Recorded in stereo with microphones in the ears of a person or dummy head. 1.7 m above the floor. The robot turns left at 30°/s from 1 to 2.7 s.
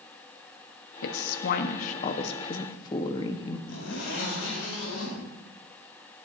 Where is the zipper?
85° left, 4.5 m.